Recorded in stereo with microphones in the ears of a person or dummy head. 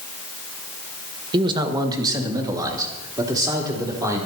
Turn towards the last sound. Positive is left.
turn(degrees=-20)  # may be behind; listen again after turning